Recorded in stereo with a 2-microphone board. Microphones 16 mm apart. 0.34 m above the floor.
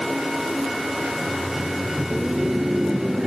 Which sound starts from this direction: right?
Laughter, at 1.1 s.